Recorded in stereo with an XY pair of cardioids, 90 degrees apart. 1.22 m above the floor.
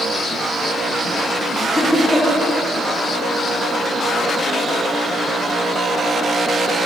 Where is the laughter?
5° left, 3 m.